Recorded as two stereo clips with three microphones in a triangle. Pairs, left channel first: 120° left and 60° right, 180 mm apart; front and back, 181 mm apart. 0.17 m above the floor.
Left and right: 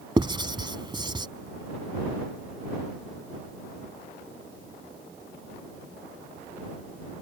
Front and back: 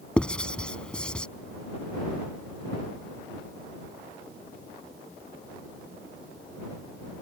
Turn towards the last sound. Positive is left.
turn(degrees=-75)